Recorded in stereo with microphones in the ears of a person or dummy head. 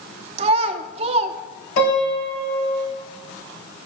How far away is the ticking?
I don't hear ticking.